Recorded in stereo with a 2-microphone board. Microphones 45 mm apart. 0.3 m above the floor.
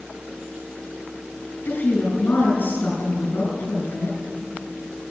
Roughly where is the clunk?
No clunk in this recording.